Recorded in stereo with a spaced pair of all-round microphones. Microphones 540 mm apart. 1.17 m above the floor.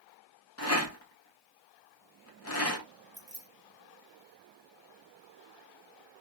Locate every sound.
0.6 s a rattle: 25° left (ahead or behind), 0.7 m
3.1 s keys jangling: 40° right (ahead or behind), 1.2 m